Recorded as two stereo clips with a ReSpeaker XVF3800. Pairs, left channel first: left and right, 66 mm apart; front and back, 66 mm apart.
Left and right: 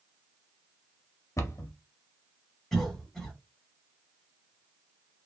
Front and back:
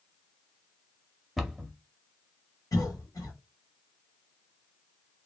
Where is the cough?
5° left, 1.2 m.